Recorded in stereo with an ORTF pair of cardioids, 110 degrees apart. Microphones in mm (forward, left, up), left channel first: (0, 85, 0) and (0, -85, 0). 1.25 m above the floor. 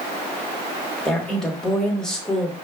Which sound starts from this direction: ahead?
A woman speaking, at 1.1 s.